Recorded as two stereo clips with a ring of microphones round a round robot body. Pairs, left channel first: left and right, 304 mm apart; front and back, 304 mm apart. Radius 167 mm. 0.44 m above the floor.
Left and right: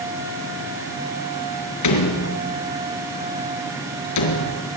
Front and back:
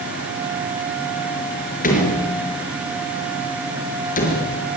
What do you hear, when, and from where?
1.8 s a door slam: 65° left, 5 m